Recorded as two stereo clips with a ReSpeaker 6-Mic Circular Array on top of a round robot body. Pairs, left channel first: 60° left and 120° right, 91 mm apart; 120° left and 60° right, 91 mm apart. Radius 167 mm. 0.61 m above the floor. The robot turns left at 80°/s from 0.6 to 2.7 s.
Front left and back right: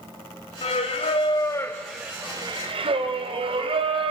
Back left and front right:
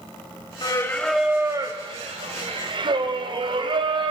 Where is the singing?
75° left, 1.5 m; by 4.1 s 95° right, 1.5 m.